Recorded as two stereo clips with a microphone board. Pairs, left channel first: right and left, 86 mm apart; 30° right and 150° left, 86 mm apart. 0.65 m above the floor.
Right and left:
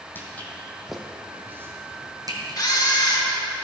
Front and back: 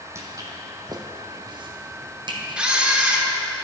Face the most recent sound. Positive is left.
turn(degrees=-130)